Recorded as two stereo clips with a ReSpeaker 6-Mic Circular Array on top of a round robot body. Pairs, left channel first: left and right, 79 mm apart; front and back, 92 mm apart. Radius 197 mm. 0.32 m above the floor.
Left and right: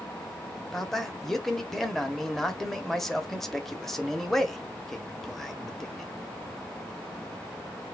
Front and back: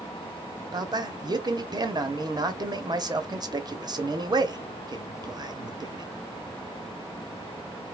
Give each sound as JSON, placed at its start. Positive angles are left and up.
{"t": 0.7, "sound": "a man speaking", "azimuth_deg": 175, "distance_m": 1.1}